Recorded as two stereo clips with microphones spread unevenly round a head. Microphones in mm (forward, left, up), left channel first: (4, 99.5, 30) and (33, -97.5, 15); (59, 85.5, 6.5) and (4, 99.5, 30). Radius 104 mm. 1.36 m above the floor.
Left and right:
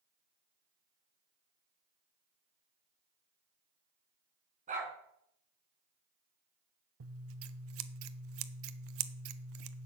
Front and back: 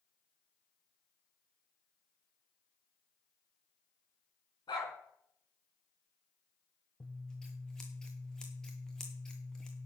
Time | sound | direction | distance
4.7 | a dog barking | 25° right | 4 m
7.0 | scissors | 90° right | 0.9 m